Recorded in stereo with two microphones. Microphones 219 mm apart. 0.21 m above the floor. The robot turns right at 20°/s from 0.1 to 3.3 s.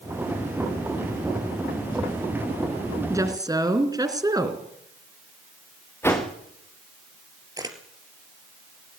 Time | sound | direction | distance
3.1 | a woman speaking | 15° right (ahead or behind) | 3 m
6.0 | a whoosh | 10° left (ahead or behind) | 4.5 m
7.6 | a camera shutter | 15° right (ahead or behind) | 3 m